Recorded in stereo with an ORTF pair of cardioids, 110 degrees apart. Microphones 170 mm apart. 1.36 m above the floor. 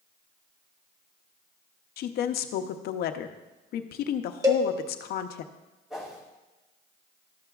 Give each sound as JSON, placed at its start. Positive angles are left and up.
{"t": 2.0, "sound": "a woman speaking", "azimuth_deg": 65, "distance_m": 0.7}
{"t": 4.4, "sound": "a cowbell", "azimuth_deg": -20, "distance_m": 1.2}
{"t": 5.9, "sound": "a whoosh", "azimuth_deg": -5, "distance_m": 4.0}